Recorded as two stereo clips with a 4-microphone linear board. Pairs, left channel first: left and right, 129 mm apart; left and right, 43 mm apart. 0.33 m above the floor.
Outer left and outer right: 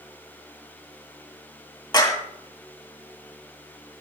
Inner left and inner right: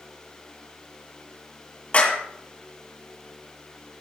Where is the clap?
35° left (ahead or behind), 2 m.